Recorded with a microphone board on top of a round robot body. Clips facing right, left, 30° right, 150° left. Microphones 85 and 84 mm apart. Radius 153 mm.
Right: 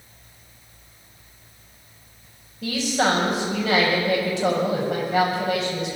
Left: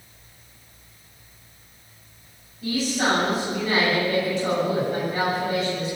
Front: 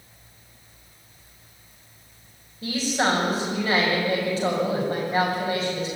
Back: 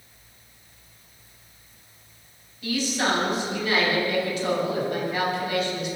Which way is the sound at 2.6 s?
85° right.